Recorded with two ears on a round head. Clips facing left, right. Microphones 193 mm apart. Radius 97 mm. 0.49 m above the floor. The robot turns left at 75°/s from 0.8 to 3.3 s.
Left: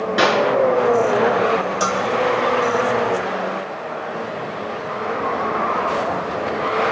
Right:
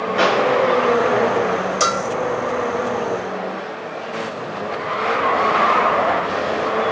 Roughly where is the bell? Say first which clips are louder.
Even; right.